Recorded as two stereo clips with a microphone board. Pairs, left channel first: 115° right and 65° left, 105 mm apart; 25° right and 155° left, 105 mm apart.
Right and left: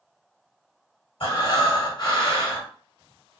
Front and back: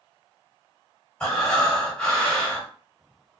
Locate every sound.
1.2 s breathing: 105° right, 2.0 m